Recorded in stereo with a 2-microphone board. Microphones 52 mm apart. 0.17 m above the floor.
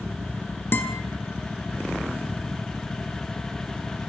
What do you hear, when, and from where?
0.7 s a guitar: 40° left (ahead or behind), 1.1 m